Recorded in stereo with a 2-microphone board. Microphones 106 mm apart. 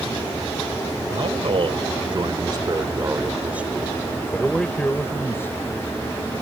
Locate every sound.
1.1 s a man speaking: 65° right (ahead or behind); by 5.7 s 25° left (ahead or behind)